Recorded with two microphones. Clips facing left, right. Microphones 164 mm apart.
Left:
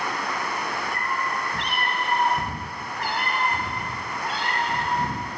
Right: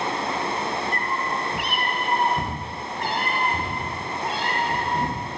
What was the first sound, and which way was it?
A cat meowing, 5° left (ahead or behind).